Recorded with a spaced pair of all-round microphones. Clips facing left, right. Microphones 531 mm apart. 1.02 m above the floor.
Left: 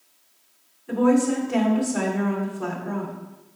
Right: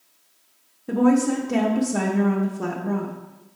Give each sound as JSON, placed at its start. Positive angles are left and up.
{"t": 0.9, "sound": "a woman speaking", "side_deg": -60, "distance_m": 1.0}